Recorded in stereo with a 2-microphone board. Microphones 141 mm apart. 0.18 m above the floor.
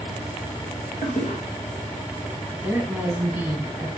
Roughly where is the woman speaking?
Centre.